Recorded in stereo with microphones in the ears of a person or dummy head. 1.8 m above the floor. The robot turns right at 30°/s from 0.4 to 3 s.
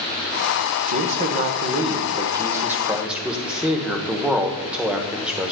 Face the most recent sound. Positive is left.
turn(degrees=-5)